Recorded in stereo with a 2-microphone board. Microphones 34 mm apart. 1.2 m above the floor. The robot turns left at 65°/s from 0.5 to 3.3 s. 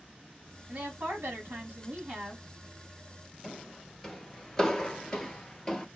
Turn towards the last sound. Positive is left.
turn(degrees=20)  # may be behind; listen again after turning